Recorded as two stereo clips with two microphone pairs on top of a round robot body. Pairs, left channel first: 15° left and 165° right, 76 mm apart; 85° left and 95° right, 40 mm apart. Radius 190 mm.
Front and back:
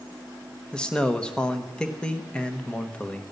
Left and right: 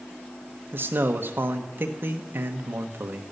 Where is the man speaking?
60° right, 1.0 m.